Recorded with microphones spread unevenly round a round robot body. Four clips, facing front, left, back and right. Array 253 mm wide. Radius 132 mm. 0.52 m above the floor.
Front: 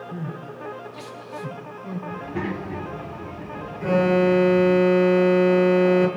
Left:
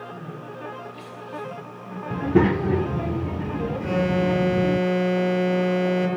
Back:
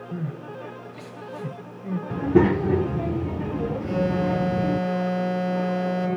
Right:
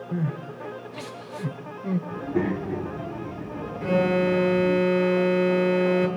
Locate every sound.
0.1 s crying: 115° right, 3 m
2.1 s a child speaking: 130° left, 1.0 m
3.8 s an alarm: straight ahead, 9 m